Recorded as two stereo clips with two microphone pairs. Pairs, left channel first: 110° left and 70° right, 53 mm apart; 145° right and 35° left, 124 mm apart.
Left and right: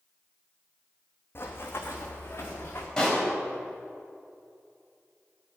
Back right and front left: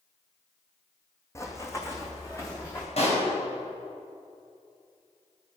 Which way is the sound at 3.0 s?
175° right.